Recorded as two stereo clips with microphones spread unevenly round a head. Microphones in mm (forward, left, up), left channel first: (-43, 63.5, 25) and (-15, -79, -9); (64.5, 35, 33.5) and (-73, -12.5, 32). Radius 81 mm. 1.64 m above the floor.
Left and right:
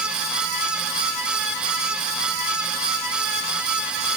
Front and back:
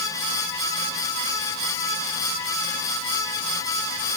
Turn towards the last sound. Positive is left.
No sound to turn to.